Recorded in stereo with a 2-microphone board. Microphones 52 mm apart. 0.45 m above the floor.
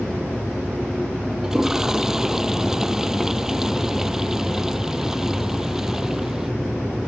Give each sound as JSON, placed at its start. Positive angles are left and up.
{"t": 1.4, "sound": "a toilet flushing", "side_deg": -10}